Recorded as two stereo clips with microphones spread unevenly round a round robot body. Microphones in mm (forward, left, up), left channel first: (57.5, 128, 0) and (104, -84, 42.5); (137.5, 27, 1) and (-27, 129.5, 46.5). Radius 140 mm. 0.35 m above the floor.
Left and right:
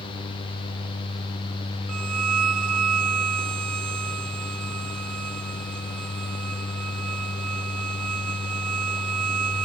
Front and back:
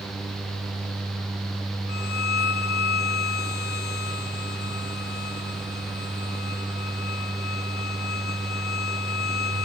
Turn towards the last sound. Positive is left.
turn(degrees=-85)